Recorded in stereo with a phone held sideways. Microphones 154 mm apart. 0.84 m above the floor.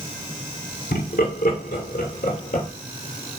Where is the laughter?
80° left, 2.0 m; by 2.7 s 60° left (ahead or behind), 2.5 m.